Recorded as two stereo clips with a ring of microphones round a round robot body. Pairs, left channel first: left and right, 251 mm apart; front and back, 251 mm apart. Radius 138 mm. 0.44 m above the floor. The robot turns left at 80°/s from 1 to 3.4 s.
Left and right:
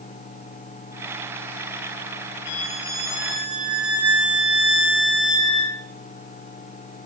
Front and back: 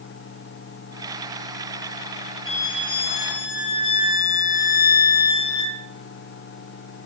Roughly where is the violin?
Left.